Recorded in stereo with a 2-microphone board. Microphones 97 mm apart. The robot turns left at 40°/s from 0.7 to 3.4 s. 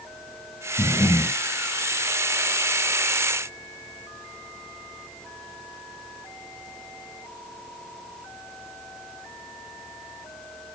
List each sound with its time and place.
0.8 s breathing: 45° left (ahead or behind), 1.2 m